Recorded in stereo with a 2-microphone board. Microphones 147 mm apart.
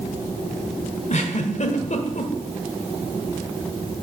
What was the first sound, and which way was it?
A giggle, 55° left (ahead or behind).